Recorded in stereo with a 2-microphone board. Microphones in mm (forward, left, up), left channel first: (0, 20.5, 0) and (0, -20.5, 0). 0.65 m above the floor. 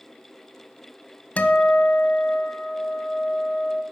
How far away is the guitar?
About 0.7 m.